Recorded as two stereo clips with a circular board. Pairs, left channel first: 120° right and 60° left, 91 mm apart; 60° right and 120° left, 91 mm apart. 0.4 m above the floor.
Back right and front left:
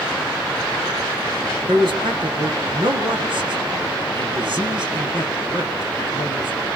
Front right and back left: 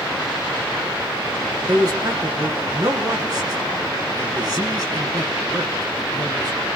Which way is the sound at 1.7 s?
80° left.